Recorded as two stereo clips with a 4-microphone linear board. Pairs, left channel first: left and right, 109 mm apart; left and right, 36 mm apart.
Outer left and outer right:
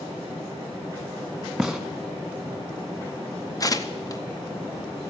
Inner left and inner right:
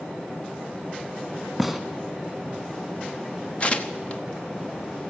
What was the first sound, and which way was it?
A gunshot, centre (ahead or behind).